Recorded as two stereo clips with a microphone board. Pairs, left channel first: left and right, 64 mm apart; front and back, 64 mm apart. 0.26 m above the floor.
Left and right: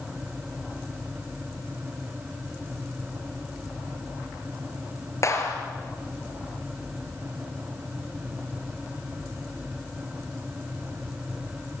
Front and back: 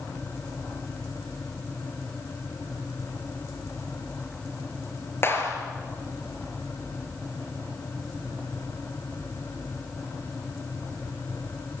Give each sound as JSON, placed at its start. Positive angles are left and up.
{"t": 5.2, "sound": "a clap", "azimuth_deg": 50, "distance_m": 3.5}